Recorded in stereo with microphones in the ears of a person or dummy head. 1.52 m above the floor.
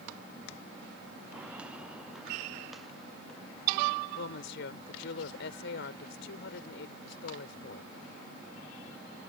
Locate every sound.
1.3 s footsteps: 10° right (ahead or behind); by 4.0 s 5° left (ahead or behind)
4.2 s a woman speaking: 65° left (ahead or behind)